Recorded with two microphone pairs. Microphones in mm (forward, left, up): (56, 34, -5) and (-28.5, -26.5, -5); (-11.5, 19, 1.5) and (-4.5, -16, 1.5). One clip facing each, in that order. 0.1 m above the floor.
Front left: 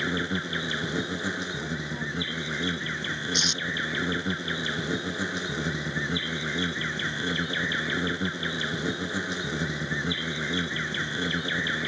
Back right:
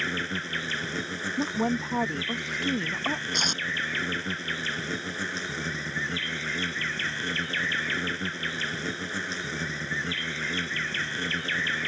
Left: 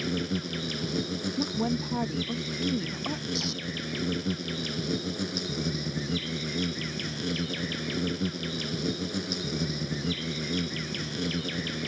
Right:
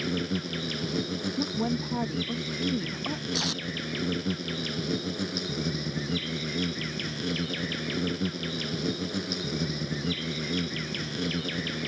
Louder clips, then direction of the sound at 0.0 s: Front left 3 dB, even; 5° right.